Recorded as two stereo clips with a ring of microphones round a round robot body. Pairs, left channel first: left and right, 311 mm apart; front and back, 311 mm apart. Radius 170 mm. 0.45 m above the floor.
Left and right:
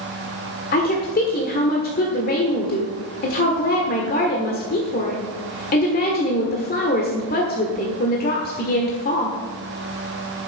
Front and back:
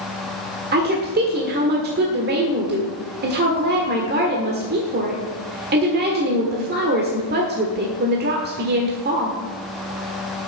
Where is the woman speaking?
135° left, 1.6 m.